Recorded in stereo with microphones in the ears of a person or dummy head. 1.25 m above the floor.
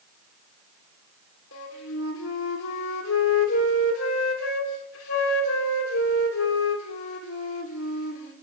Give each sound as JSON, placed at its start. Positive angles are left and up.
{"t": 1.5, "sound": "a flute", "side_deg": 85, "distance_m": 3.0}